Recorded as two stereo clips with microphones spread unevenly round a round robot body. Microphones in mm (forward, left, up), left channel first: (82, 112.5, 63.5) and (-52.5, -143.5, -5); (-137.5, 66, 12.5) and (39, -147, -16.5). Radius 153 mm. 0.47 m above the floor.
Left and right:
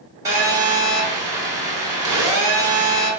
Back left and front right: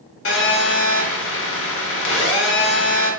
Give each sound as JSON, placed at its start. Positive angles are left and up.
{"t": 0.2, "sound": "a phone buzzing", "azimuth_deg": 170, "distance_m": 0.9}